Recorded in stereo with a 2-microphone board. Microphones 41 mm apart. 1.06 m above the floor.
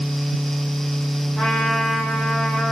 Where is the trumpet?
20° left (ahead or behind), 4.5 m.